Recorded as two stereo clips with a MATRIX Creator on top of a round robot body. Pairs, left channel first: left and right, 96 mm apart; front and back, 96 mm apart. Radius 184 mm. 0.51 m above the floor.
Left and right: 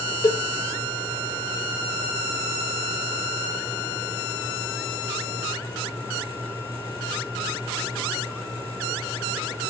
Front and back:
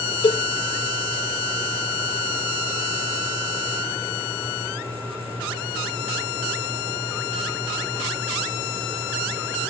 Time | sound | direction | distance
0.2 | a cowbell | 35° left | 1.4 m